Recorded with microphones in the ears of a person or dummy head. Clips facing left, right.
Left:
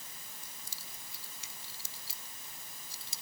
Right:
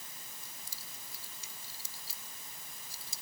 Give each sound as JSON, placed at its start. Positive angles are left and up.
{"t": 0.4, "sound": "keys jangling", "side_deg": 70}